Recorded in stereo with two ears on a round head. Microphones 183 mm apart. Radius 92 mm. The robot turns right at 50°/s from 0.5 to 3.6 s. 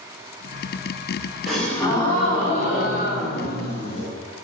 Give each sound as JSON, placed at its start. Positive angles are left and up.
{"t": 1.5, "sound": "a gasp", "azimuth_deg": 0, "distance_m": 1.9}